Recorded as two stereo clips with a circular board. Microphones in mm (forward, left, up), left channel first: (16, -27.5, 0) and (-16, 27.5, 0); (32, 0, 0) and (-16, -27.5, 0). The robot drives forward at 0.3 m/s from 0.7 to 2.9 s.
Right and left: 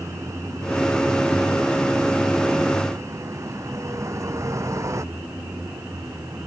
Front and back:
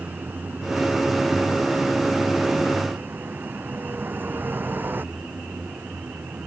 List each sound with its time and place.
0.0 s a vehicle: 155° left